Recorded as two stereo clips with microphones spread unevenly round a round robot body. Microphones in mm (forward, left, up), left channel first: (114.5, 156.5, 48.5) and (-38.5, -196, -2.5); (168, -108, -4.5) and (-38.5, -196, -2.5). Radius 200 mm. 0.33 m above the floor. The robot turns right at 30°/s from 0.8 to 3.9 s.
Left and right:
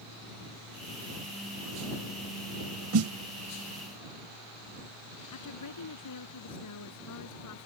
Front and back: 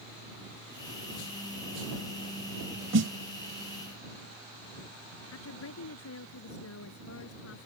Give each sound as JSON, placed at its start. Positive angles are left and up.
{"t": 2.9, "sound": "a snare drum", "azimuth_deg": -155}
{"t": 5.3, "sound": "a woman speaking", "azimuth_deg": 25}